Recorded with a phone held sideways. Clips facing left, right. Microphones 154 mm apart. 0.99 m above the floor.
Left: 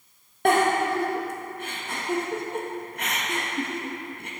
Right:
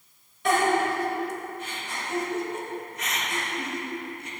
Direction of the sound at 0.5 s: 60° left (ahead or behind).